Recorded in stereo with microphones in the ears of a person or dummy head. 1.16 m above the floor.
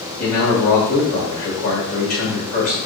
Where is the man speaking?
50° left (ahead or behind), 1.5 m.